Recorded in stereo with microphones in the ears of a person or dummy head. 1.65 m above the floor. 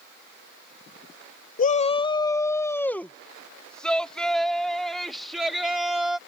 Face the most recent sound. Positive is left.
turn(degrees=-5)  # may be behind; listen again after turning